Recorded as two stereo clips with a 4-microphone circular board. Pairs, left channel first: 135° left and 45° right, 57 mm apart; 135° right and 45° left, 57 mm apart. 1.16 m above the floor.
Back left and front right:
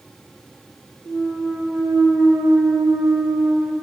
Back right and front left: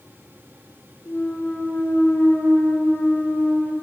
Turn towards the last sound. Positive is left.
turn(degrees=-60)